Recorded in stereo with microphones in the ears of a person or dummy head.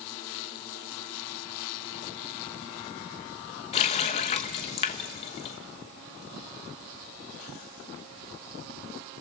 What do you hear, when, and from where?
3.7 s a running tap: 35° left (ahead or behind), 1.1 m